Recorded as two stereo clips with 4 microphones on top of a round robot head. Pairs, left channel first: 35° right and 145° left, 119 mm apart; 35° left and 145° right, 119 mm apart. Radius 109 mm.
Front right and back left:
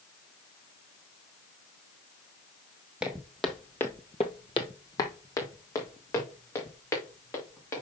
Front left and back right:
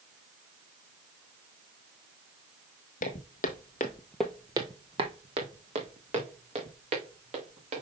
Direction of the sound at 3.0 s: 60° left.